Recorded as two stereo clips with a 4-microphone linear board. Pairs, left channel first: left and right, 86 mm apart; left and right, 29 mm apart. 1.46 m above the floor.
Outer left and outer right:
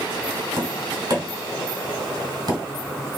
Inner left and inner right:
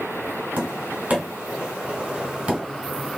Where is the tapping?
50° right (ahead or behind), 2.5 m.